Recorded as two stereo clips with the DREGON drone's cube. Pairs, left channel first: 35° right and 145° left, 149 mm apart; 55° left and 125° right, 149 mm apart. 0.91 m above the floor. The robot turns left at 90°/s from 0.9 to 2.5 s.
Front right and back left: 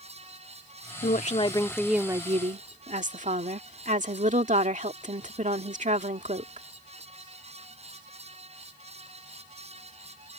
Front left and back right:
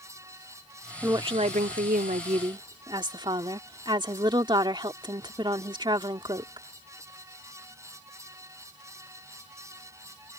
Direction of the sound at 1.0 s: 50° right.